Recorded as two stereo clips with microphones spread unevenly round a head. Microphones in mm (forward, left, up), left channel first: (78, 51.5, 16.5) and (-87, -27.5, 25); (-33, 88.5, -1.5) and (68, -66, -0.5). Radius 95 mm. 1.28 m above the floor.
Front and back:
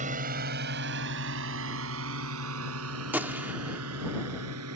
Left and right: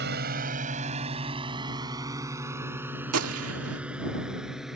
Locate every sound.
0.0 s a drone: 100° right; by 4.8 s 145° right
3.1 s a gunshot: 75° right